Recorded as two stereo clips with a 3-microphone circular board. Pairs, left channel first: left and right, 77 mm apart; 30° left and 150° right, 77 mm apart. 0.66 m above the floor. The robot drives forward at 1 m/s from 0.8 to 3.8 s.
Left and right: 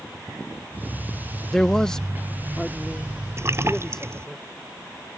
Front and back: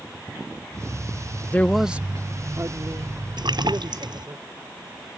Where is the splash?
140° right; by 4.3 s 145° right.